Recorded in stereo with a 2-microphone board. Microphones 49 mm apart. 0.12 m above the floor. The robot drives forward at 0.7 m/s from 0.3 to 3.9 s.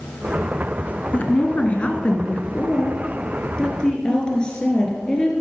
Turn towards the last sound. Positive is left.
turn(degrees=15)  # may be behind; listen again after turning